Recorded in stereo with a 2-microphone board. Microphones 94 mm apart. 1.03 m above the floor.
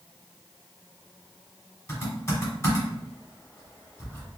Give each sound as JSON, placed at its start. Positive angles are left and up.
{"t": 1.9, "sound": "typing on a keyboard", "side_deg": 25, "distance_m": 1.2}